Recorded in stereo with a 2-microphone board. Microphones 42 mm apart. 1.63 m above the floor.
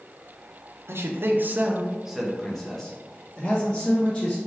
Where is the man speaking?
75° right (ahead or behind), 0.7 m; by 4.4 s 25° left (ahead or behind), 2.5 m.